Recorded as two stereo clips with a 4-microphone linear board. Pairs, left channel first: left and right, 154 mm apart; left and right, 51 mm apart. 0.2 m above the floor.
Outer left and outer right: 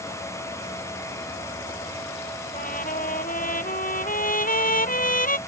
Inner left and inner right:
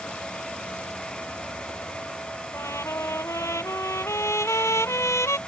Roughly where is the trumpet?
Left.